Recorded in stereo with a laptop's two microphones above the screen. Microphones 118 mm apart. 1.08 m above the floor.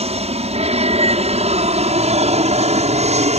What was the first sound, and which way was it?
An aircraft, 60° right (ahead or behind).